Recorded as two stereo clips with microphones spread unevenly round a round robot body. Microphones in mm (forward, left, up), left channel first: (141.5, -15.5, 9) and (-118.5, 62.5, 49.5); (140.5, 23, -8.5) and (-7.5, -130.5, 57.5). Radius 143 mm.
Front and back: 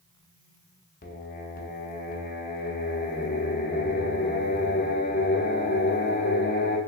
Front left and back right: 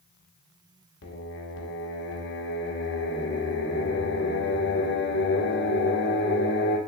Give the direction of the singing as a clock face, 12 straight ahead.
11 o'clock.